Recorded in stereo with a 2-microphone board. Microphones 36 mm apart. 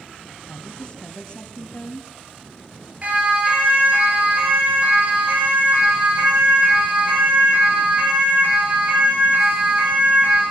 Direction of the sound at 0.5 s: 30° left (ahead or behind).